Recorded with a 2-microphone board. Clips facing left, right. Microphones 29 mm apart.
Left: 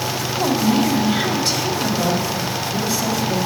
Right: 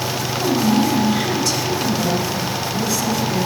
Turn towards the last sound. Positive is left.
turn(degrees=40)  # may be behind; listen again after turning